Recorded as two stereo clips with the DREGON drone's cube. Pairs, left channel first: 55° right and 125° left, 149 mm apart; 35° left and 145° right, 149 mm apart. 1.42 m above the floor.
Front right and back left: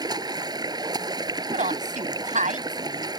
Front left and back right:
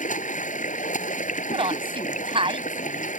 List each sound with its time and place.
0.0 s running water: 60° left
1.5 s a woman speaking: 160° left